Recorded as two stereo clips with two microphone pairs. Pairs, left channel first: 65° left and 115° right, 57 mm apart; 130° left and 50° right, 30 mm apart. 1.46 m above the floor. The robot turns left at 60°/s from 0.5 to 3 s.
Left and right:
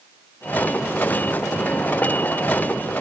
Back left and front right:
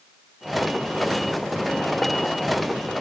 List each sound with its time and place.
Only background noise.